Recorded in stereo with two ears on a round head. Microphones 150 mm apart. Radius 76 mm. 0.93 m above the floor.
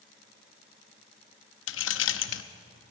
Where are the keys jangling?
85° left, 0.9 m.